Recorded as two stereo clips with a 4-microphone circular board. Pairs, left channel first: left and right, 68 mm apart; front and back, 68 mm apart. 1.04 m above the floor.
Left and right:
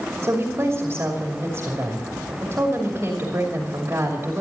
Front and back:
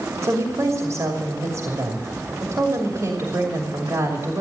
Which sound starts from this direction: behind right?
A woman speaking, at 0.2 s.